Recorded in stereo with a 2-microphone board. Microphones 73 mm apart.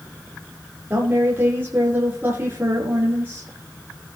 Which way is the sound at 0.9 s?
30° right (ahead or behind).